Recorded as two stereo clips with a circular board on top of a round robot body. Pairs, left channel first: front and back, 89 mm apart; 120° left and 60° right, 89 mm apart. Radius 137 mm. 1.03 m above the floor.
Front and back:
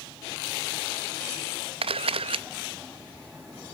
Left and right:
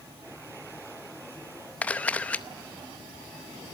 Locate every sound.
1.8 s a camera shutter: 165° right, 0.7 m